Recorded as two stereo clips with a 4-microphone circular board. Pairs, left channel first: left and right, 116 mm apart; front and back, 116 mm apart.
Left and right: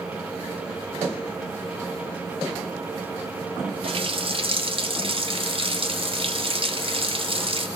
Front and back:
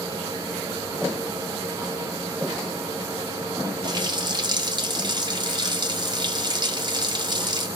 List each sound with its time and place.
3.8 s a running tap: 130° right, 0.7 m